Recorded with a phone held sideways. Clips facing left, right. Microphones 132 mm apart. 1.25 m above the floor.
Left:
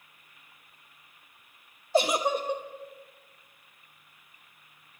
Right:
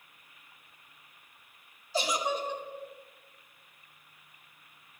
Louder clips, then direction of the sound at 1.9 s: Left 6 dB; 55° left (ahead or behind).